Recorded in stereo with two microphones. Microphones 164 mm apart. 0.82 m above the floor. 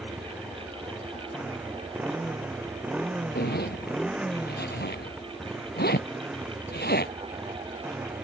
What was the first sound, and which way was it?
A motorcycle, 5° right (ahead or behind).